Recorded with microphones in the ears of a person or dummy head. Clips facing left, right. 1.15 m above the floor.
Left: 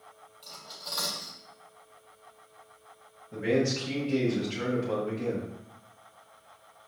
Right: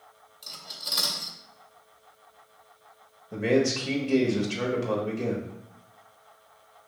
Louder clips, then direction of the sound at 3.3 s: Right 3 dB; 60° right (ahead or behind).